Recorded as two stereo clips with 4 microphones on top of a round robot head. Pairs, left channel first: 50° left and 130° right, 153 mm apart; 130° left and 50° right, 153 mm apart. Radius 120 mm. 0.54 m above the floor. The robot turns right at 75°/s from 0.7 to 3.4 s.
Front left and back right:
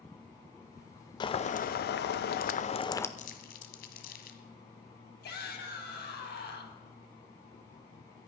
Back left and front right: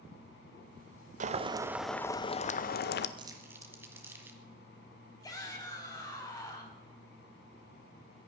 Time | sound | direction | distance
1.2 | boiling | 10° right | 0.6 m
3.2 | crumpling | 10° left | 1.3 m
5.2 | a shout | 60° left | 3.5 m